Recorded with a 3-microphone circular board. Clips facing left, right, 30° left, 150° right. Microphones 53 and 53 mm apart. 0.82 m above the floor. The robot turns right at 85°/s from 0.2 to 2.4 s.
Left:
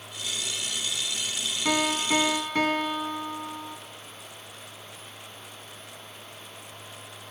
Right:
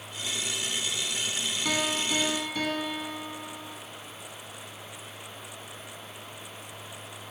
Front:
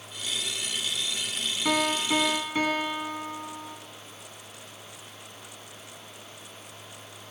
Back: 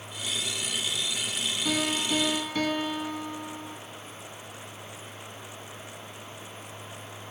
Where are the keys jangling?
No keys jangling in this recording.